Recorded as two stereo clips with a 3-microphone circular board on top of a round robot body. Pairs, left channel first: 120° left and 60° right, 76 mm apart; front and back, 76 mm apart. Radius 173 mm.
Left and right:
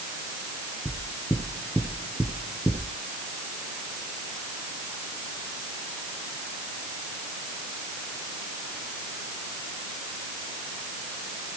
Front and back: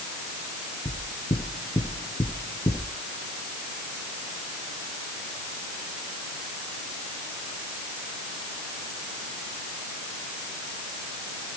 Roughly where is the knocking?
Ahead left.